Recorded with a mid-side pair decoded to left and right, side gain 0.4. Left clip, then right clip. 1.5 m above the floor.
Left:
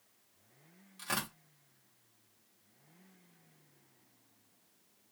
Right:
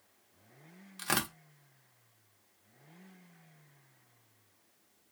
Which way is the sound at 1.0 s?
60° right.